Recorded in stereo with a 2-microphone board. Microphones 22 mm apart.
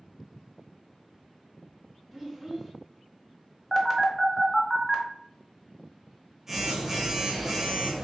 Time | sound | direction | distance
2.1 | a child speaking | 5° right (ahead or behind) | 1.0 m
3.7 | a phone buzzing | 15° right (ahead or behind) | 0.8 m